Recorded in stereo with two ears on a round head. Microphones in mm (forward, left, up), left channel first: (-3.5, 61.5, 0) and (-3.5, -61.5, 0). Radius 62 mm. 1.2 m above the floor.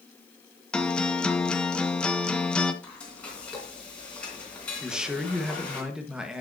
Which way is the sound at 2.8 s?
10° left (ahead or behind).